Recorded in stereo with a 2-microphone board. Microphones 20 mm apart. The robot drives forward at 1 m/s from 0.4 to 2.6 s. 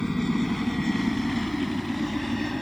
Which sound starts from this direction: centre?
A helicopter, at 0.0 s.